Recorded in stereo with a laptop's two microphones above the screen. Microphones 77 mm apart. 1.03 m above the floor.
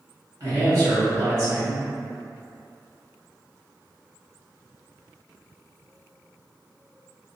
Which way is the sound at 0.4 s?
45° right (ahead or behind).